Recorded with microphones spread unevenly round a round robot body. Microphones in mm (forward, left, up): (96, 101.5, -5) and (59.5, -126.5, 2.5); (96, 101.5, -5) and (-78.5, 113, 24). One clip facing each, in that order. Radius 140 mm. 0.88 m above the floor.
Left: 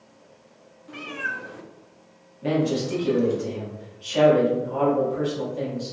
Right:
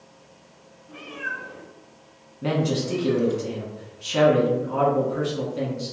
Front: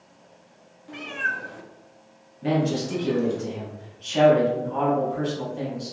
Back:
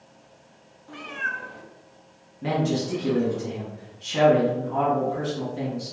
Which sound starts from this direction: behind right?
A man speaking, at 2.4 s.